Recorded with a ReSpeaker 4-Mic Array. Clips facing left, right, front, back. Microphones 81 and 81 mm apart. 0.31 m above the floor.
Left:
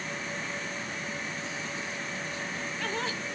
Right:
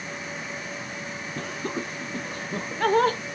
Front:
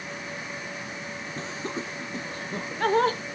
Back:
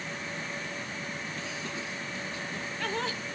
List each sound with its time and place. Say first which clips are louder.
1.4 s laughter: right 5 dB, front 4 dB; 55° right; by 3.2 s 45° right